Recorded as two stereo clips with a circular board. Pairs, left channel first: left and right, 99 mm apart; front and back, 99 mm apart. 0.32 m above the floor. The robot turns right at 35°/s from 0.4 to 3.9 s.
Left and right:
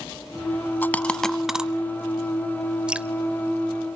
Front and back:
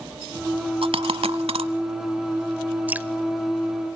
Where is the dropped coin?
160° left, 0.8 m; by 1.7 s 170° right, 0.8 m.